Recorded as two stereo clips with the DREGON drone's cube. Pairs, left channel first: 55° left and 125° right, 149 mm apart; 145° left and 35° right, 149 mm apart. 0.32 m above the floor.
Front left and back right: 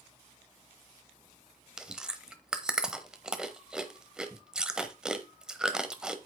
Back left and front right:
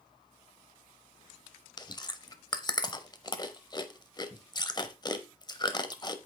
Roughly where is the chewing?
Behind left.